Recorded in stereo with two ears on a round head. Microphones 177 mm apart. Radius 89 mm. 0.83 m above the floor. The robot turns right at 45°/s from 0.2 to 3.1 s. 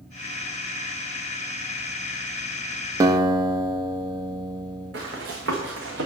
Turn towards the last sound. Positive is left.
turn(degrees=-65)  # may be behind; listen again after turning